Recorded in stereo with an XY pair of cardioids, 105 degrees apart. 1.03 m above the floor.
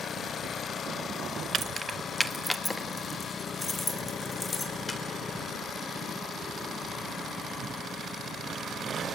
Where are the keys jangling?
50° right, 0.6 m; by 5.0 s 30° left, 3.5 m.